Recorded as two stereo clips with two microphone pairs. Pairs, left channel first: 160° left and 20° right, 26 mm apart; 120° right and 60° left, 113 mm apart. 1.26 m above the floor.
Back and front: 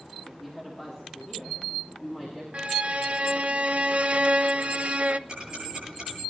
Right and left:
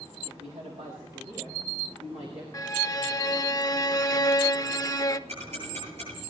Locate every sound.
0.2 s a woman speaking: 70° left, 2.5 m; by 2.4 s 75° left, 4.5 m
2.5 s a violin: 60° right, 0.5 m
5.3 s ticking: 40° left, 9 m